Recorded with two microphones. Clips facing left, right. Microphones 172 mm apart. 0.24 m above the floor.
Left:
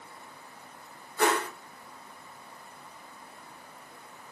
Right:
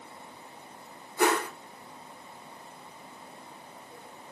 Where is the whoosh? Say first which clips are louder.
Right 1 dB; 15° right (ahead or behind), 1.6 m.